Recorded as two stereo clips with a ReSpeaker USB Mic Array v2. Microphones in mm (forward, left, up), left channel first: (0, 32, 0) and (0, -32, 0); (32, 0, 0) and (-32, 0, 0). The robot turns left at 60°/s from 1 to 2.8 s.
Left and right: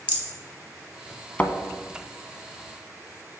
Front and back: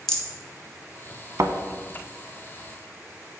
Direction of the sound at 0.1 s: 65° left.